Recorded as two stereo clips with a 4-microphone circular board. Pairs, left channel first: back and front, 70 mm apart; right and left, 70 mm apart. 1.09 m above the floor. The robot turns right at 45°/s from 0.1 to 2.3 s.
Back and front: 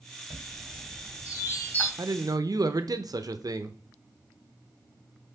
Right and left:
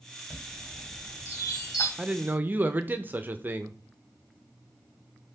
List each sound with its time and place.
0.3 s a chime: straight behind, 2.5 m; by 1.9 s 110° right, 2.5 m
2.0 s a man speaking: 15° left, 0.6 m; by 3.8 s 30° left, 0.6 m